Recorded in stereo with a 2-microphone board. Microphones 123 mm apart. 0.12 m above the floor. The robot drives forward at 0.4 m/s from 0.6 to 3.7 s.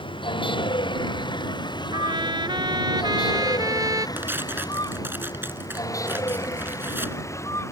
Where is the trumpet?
40° right (ahead or behind); by 4.1 s 30° right (ahead or behind).